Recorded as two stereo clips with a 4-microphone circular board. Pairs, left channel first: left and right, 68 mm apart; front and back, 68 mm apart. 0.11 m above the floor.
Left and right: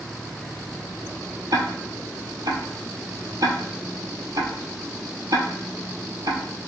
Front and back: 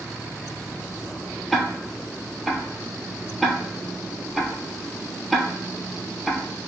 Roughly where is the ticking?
Right.